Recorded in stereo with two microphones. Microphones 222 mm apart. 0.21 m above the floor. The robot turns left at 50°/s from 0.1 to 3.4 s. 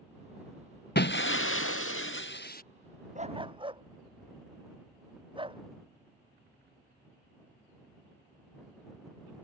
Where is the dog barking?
35° right (ahead or behind); by 5.6 s 25° right (ahead or behind).